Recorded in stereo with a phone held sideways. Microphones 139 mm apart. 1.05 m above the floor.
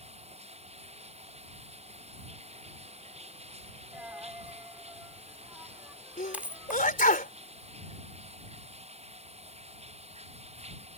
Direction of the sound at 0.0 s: 50° right (ahead or behind).